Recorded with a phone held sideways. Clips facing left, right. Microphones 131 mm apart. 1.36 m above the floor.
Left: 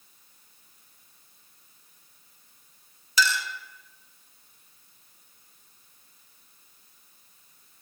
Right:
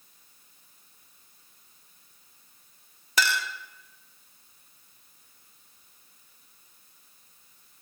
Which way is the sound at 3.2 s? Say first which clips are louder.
Left 1 dB; 60° right (ahead or behind).